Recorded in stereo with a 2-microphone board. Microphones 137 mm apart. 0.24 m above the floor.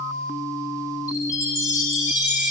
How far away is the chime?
About 5.5 m.